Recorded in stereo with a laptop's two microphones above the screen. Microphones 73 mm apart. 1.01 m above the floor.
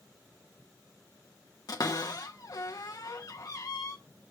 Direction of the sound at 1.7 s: 55° left (ahead or behind).